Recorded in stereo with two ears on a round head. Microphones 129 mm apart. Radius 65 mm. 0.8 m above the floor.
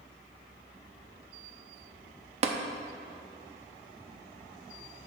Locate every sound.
2.4 s tapping: 45° right (ahead or behind), 0.6 m